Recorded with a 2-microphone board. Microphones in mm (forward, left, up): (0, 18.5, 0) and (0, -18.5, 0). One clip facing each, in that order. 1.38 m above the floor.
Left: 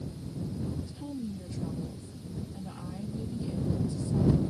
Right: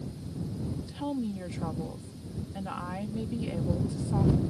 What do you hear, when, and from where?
0.9 s a woman speaking: 65° right (ahead or behind)